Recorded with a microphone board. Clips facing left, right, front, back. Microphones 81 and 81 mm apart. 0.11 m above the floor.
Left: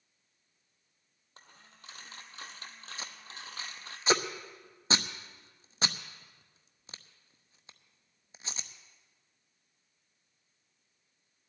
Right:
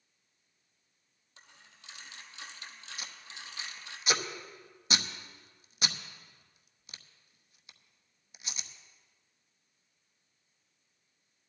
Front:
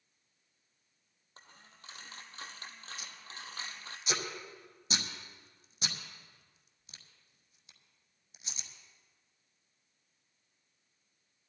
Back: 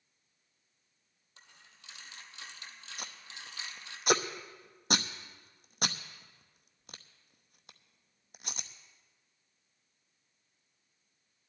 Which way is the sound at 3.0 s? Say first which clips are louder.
Left 3 dB, back 1 dB; 145° left.